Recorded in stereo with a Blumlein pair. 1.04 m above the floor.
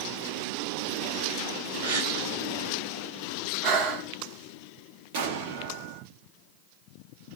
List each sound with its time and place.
1.8 s a gasp: 60° right, 1.4 m
3.6 s breathing: 35° right, 0.8 m
5.1 s an explosion: 50° right, 1.0 m